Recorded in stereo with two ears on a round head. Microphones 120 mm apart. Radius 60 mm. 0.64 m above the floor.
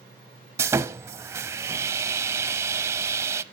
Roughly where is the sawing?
Centre.